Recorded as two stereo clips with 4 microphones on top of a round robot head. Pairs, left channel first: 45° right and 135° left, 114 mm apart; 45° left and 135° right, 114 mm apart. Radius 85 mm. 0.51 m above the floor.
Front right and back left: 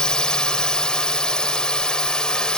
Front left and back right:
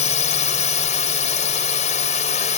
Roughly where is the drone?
Ahead left.